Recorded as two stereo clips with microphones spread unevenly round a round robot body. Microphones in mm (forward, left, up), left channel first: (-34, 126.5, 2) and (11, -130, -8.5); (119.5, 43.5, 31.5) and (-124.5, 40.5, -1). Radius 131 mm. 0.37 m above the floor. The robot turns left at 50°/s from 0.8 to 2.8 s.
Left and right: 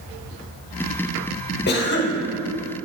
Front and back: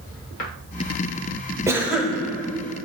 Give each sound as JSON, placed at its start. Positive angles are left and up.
{"t": 1.7, "sound": "a cough", "azimuth_deg": 120, "distance_m": 1.0}